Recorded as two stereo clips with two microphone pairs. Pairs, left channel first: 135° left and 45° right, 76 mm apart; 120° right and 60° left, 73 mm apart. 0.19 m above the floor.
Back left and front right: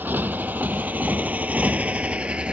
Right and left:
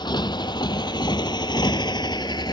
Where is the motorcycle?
110° right; by 2.5 s 120° right.